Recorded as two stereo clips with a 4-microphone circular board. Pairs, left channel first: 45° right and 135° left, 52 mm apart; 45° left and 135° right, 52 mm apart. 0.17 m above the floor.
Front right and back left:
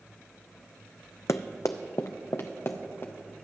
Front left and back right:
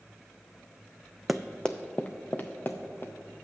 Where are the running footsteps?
50° right, 0.5 m; by 3.1 s 5° right, 1.5 m.